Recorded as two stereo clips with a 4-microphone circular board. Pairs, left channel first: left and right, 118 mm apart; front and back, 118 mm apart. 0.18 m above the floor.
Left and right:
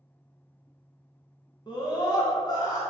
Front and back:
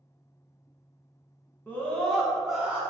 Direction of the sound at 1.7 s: 65° left.